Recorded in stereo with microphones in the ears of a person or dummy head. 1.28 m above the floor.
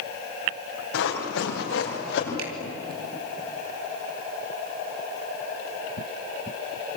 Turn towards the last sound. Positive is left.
turn(degrees=-85)